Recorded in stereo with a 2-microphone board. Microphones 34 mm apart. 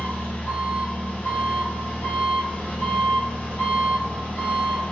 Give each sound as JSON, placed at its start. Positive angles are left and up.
{"t": 0.0, "sound": "an engine running", "side_deg": 60, "distance_m": 0.9}